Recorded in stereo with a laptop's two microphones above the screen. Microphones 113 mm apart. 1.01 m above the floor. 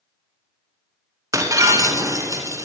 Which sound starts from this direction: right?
Breaking glass, at 1.3 s.